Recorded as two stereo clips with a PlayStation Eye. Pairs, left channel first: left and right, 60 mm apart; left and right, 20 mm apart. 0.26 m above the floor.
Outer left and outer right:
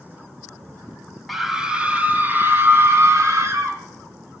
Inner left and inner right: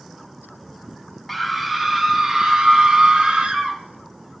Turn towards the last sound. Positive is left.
turn(degrees=-55)  # may be behind; listen again after turning